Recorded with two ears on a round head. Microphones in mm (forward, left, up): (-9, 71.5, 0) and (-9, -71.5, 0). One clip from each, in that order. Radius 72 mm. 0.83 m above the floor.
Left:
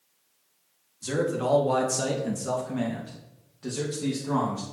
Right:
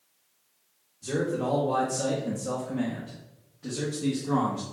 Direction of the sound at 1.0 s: 30° left (ahead or behind).